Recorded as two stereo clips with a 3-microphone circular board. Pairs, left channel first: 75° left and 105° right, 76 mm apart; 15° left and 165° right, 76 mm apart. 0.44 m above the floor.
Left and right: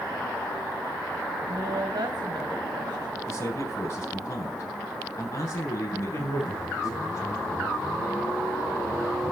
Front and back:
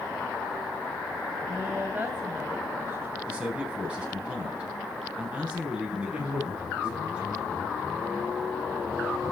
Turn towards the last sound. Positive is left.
turn(degrees=120)